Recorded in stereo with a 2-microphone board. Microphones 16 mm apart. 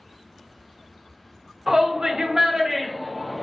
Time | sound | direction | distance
1.7 | a shout | 55° right (ahead or behind) | 0.6 m